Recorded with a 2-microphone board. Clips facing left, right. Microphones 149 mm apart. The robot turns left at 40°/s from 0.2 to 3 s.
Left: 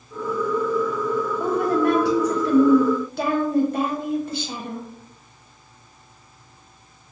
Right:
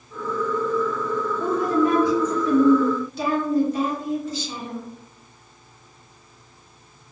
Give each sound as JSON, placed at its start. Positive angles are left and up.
{"t": 1.4, "sound": "a woman speaking", "azimuth_deg": 125, "distance_m": 0.9}